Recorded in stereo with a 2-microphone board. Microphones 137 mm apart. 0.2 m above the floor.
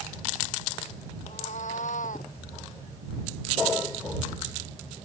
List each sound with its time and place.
1.2 s a cat meowing: 60° left (ahead or behind); by 2.3 s 70° left (ahead or behind)